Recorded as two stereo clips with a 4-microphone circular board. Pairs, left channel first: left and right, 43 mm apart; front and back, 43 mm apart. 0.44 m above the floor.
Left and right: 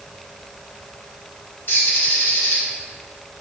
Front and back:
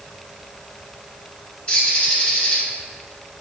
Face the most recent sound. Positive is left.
turn(degrees=65)